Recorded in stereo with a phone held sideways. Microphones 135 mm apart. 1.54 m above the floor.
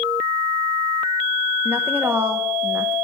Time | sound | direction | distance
1.6 | a woman speaking | 15° right (ahead or behind) | 1.0 m